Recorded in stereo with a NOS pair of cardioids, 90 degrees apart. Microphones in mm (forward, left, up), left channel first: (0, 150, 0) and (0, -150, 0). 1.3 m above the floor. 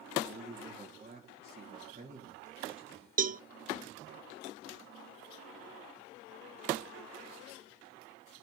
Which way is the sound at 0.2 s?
20° right.